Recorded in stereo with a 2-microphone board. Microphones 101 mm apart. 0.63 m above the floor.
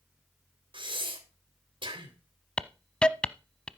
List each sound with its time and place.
0.7 s breathing: 55° right (ahead or behind), 3 m
2.6 s a hiss: 10° left (ahead or behind), 0.7 m